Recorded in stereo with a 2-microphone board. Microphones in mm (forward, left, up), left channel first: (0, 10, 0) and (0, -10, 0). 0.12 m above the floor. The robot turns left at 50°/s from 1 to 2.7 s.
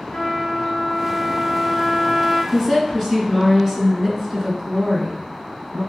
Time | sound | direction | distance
0.1 | a trumpet | 100° left | 1.1 m
2.5 | a woman speaking | 15° right (ahead or behind) | 1.2 m